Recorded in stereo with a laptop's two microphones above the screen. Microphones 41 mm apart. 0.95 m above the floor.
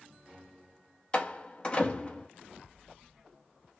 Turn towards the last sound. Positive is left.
turn(degrees=25)  # may be behind; listen again after turning